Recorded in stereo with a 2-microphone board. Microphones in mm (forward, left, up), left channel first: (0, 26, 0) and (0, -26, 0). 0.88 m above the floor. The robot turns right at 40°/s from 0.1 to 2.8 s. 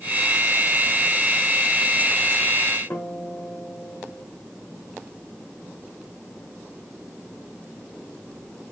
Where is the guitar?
50° left (ahead or behind), 1.2 m.